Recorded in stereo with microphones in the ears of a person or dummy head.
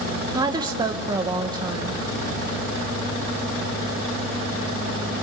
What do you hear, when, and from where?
0.3 s a woman speaking: 20° right (ahead or behind), 0.9 m